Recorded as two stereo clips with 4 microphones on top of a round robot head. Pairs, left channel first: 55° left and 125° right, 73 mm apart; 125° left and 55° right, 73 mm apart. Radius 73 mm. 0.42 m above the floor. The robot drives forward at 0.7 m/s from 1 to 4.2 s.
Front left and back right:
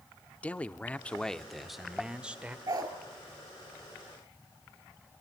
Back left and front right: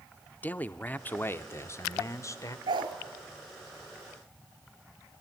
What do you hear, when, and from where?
0.4 s a man speaking: 100° left, 0.8 m; by 2.6 s 165° left, 1.4 m
2.7 s a dog barking: 80° right, 2.0 m; by 2.9 s 85° right, 1.9 m